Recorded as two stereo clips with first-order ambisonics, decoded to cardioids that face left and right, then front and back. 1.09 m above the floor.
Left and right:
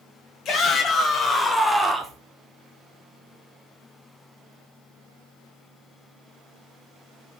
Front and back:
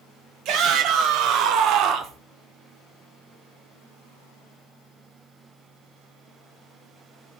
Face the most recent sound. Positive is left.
turn(degrees=-150)